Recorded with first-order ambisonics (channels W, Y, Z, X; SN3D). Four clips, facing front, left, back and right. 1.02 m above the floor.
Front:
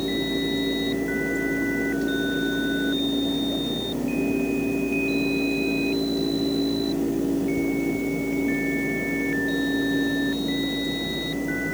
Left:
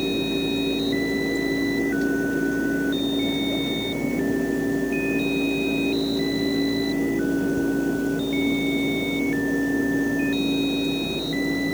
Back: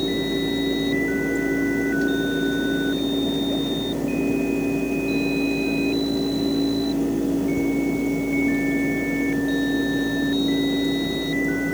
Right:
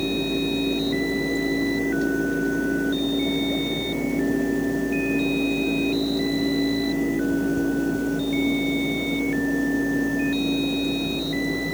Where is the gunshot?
No gunshot in this recording.